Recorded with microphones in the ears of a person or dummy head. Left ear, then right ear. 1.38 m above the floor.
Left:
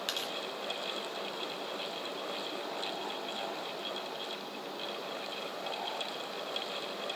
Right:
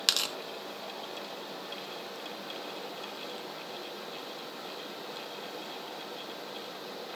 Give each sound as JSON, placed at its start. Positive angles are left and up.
{"t": 0.1, "sound": "tearing paper", "side_deg": -20, "distance_m": 0.6}